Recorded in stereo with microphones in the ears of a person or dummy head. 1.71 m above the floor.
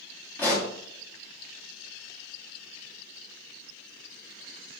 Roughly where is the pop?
Centre.